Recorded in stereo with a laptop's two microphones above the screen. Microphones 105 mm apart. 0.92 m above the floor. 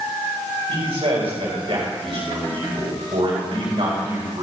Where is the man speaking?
65° right (ahead or behind), 5 m.